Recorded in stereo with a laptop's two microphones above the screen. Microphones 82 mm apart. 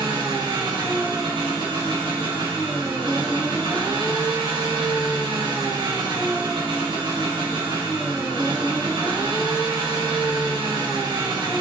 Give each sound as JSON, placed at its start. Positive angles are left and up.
{"t": 0.0, "sound": "an engine running", "side_deg": -75, "distance_m": 3.0}